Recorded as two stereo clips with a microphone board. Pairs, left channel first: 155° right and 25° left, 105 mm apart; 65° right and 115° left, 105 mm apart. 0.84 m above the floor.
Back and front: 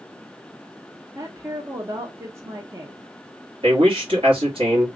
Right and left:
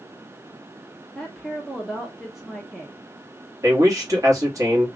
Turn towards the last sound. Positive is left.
turn(degrees=55)